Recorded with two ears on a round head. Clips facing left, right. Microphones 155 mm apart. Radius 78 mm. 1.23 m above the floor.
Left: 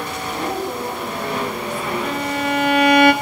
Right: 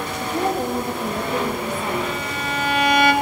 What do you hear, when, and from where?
0.2 s a woman speaking: 40° right (ahead or behind), 2.5 m; by 1.9 s 15° right (ahead or behind), 1.7 m
2.0 s a violin: 45° left (ahead or behind), 0.6 m